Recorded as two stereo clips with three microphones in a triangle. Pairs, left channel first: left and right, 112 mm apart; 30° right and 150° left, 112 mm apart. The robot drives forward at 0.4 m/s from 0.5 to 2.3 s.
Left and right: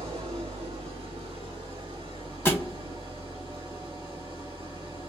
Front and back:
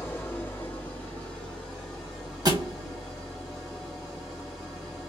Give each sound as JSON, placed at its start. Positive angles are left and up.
{"t": 0.0, "sound": "an engine running", "azimuth_deg": -100, "distance_m": 1.9}
{"t": 2.5, "sound": "a thud", "azimuth_deg": 145, "distance_m": 0.9}